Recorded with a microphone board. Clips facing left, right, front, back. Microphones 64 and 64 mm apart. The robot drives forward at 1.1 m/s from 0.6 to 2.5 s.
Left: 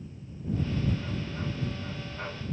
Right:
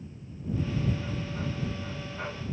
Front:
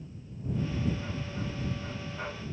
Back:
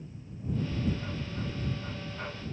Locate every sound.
Only background noise.